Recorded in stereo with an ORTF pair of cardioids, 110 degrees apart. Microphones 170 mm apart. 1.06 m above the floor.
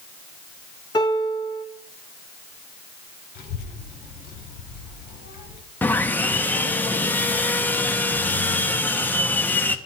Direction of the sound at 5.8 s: 10° left.